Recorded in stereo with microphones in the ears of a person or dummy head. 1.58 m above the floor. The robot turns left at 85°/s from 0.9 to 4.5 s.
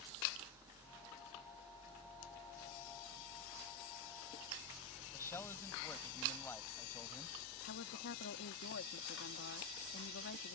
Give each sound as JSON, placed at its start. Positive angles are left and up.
{"t": 5.1, "sound": "a man speaking", "side_deg": 20}
{"t": 7.6, "sound": "a woman speaking", "side_deg": 55}